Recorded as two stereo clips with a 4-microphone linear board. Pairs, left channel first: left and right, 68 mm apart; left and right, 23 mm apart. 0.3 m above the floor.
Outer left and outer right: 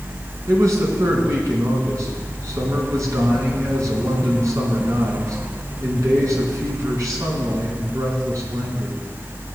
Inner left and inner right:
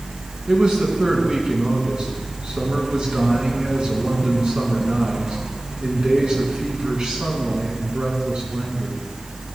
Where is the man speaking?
50° right (ahead or behind), 2.5 m.